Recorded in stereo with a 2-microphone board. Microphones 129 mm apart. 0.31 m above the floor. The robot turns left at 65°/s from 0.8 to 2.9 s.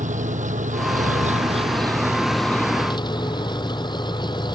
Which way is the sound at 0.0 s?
80° right.